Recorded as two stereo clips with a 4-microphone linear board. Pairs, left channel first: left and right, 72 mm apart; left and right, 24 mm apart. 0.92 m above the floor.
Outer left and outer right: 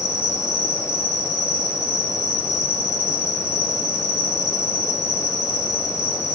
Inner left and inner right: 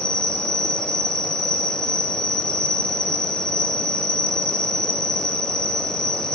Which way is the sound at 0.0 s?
40° left (ahead or behind).